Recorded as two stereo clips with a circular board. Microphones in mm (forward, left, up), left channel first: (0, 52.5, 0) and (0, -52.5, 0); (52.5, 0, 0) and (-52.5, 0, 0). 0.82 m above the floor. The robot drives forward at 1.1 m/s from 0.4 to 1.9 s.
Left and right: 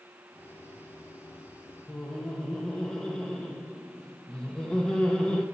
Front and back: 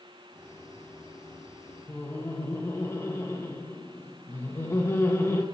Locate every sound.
1.9 s laughter: 20° left, 1.1 m